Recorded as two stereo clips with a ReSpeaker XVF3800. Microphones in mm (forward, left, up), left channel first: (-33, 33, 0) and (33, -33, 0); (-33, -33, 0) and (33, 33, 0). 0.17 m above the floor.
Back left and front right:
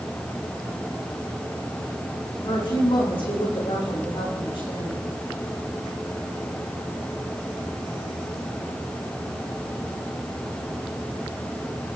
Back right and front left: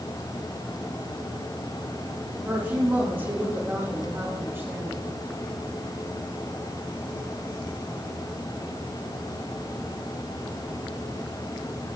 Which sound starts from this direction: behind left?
A woman speaking, at 2.4 s.